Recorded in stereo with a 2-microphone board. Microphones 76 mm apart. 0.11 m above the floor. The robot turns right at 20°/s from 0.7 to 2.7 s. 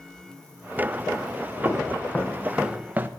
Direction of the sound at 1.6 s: 35° left (ahead or behind).